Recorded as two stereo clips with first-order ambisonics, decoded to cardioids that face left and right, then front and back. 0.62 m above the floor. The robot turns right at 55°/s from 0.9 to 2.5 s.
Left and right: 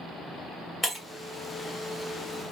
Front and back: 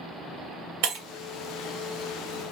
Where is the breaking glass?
Straight behind, 1.8 m; by 1.1 s 170° right, 1.8 m.